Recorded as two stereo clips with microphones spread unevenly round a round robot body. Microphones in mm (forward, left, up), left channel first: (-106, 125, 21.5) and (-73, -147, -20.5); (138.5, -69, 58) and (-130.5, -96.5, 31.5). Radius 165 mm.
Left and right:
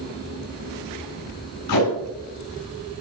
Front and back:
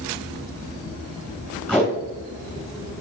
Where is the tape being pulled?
100° left, 6.5 m.